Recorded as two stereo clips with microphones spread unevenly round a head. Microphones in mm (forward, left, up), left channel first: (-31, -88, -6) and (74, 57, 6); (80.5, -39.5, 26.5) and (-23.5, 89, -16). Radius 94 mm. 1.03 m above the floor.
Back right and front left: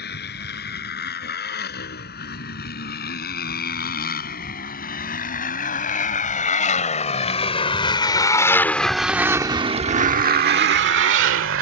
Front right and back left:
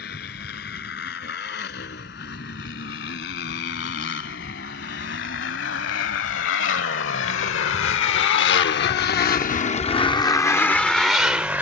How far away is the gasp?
I don't hear a gasp.